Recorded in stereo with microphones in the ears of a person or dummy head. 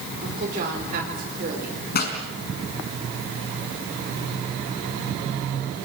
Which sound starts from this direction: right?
A woman speaking, at 0.2 s.